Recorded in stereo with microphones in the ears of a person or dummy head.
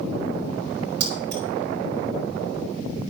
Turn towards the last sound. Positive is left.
turn(degrees=-60)  # may be behind; listen again after turning